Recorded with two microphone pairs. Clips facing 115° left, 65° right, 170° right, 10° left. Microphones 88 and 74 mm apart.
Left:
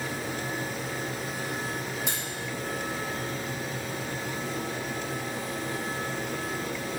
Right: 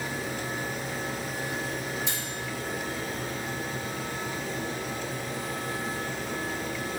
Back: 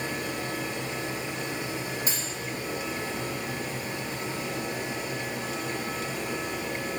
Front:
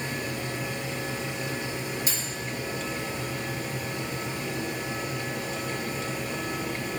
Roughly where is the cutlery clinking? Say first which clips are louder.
Left 1 dB, even; behind left.